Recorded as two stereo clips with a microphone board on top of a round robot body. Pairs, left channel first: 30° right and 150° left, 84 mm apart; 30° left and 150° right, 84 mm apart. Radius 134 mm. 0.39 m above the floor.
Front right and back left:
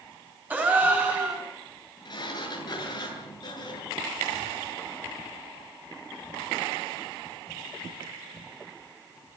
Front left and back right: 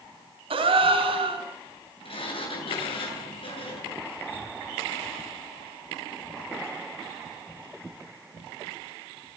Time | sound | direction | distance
0.5 | a gasp | 140° right | 6 m
2.0 | a sliding door | 10° left | 8 m